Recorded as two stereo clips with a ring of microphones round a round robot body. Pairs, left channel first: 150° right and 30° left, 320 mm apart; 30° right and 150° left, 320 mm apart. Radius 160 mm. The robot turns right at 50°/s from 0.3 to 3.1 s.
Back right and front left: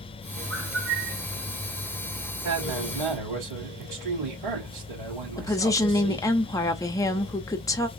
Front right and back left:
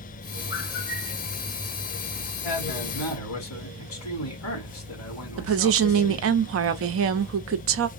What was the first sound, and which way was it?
A bird, straight ahead.